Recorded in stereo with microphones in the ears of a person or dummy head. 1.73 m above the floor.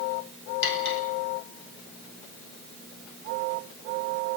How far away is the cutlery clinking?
About 4.5 m.